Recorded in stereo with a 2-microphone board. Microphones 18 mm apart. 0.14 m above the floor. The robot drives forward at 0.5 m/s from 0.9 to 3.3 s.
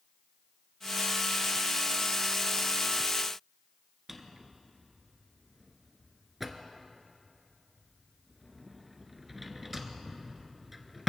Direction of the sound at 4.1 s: 5° right (ahead or behind).